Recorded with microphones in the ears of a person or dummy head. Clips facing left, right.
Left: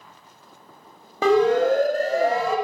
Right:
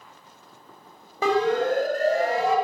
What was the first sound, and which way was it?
A siren, 65° left (ahead or behind).